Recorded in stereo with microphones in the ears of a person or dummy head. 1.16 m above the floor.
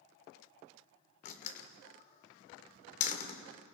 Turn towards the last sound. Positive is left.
turn(degrees=40)  # may be behind; listen again after turning